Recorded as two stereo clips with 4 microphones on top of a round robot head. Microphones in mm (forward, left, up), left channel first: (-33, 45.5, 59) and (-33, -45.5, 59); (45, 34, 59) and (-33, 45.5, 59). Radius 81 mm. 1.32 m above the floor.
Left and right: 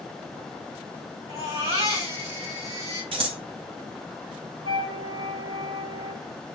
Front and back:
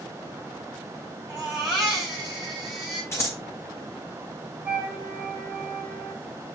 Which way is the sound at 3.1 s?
70° right.